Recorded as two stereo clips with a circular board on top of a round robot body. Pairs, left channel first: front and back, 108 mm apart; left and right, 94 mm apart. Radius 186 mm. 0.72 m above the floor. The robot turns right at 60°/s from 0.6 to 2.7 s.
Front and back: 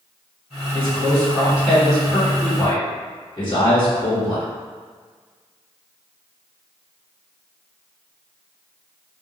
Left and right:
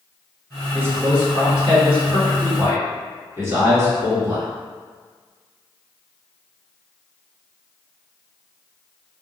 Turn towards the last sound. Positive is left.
turn(degrees=-40)